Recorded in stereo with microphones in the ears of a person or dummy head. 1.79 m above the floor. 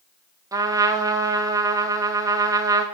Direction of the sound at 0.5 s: 15° right (ahead or behind).